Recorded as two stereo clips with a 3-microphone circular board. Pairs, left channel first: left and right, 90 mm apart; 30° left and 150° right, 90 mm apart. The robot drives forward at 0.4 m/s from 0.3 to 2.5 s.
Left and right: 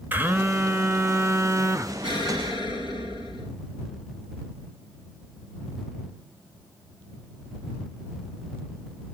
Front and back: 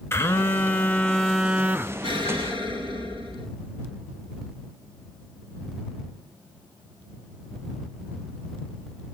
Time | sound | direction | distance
0.1 | a phone buzzing | 25° right | 0.8 m
2.0 | an explosion | 120° right | 4.5 m